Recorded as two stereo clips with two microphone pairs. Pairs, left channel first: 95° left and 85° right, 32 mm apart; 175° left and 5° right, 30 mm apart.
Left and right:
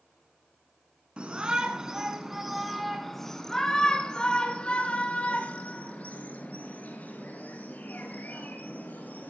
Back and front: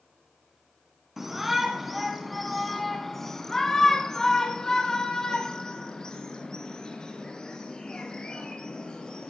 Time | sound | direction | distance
1.2 | a shout | 80° right | 1.8 m